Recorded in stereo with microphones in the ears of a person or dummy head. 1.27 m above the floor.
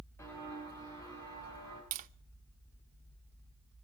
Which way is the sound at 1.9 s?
40° right (ahead or behind).